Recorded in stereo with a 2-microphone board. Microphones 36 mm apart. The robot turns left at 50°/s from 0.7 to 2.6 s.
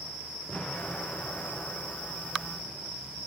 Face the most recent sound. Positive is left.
turn(degrees=60)